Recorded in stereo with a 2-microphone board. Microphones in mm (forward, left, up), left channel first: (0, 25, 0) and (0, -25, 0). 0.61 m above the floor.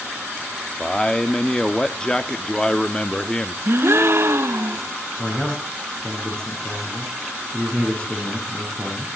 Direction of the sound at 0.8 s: 15° left (ahead or behind).